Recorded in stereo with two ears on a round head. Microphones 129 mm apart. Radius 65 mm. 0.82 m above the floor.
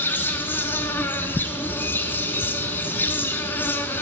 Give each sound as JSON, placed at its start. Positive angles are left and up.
{"t": 0.0, "sound": "an insect", "side_deg": 15, "distance_m": 0.8}